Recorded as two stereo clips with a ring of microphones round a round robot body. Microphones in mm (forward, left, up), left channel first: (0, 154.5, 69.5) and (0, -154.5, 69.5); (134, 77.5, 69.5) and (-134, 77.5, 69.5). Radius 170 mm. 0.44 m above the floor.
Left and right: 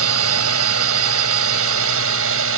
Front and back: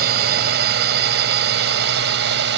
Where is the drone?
130° right; by 2.6 s 135° right.